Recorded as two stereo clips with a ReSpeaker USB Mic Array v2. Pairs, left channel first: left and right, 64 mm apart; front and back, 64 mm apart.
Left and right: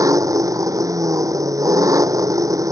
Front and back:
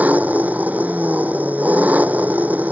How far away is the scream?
No scream in this recording.